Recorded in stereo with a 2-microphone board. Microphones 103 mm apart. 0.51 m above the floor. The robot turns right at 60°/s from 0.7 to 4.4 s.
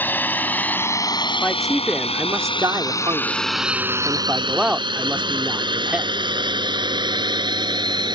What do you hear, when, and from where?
0.0 s a drone: 20° left (ahead or behind); by 8.2 s 45° right (ahead or behind)
1.4 s a man speaking: 165° left; by 6.1 s 15° right